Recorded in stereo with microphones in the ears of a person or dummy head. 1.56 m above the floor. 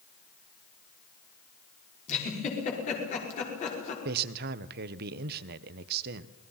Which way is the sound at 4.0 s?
55° right (ahead or behind).